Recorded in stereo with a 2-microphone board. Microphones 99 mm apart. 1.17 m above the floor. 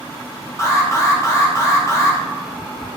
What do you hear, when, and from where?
0.6 s an alarm: 30° left (ahead or behind), 1.5 m